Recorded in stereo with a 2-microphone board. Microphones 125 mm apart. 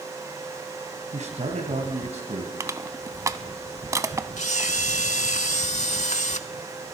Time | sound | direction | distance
1.1 | a man speaking | 65° right (ahead or behind) | 2.5 m
2.6 | crushing | 25° right (ahead or behind) | 0.5 m
4.4 | a camera shutter | 70° left (ahead or behind) | 0.6 m